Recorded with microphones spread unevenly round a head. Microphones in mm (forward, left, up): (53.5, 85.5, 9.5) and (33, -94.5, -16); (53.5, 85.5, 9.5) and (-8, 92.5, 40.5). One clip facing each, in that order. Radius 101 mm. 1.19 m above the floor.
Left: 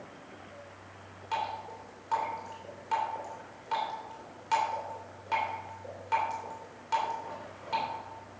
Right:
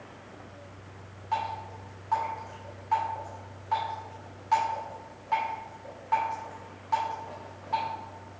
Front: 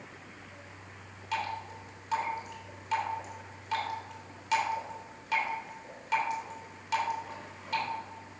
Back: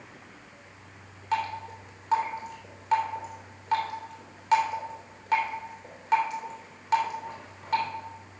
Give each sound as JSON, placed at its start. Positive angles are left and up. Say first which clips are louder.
{"t": 1.3, "sound": "dripping", "louder": "right 2 dB, back 5 dB", "azimuth_deg": 140, "distance_m": 3.0}